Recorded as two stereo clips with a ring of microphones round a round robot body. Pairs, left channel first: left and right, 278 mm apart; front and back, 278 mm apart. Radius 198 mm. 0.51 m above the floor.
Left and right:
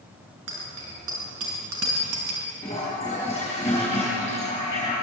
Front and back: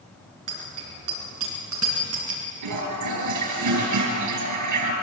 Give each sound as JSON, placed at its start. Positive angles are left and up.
{"t": 0.5, "sound": "a bicycle bell", "azimuth_deg": -145, "distance_m": 5.0}
{"t": 2.6, "sound": "a toilet flushing", "azimuth_deg": 175, "distance_m": 4.5}